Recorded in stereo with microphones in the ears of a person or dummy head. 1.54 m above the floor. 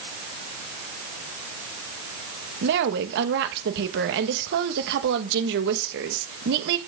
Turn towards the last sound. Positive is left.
turn(degrees=-65)  # may be behind; listen again after turning